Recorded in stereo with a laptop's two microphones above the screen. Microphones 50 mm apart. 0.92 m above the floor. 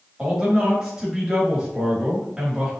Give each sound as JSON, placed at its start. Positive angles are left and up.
{"t": 0.2, "sound": "a man speaking", "side_deg": -10, "distance_m": 2.0}